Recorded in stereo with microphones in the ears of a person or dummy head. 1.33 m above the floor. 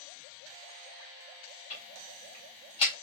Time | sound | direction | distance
1.7 | ticking | 30° left (ahead or behind) | 1.9 m